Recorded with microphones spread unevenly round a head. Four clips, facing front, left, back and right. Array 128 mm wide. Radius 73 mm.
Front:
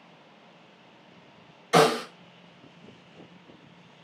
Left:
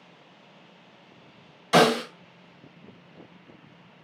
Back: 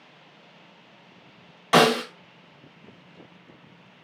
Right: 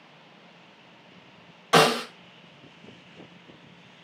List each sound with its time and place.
1.7 s a snare drum: 155° right, 2 m